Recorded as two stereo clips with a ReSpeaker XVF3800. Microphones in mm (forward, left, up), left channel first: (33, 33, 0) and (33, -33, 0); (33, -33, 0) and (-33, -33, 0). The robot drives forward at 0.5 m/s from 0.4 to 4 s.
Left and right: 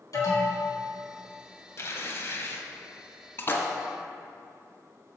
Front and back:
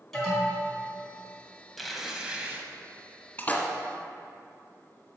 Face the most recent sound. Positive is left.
turn(degrees=75)